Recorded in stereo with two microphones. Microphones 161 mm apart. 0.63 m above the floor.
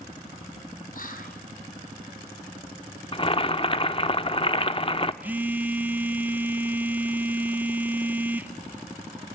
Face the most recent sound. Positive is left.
turn(degrees=-10)  # may be behind; listen again after turning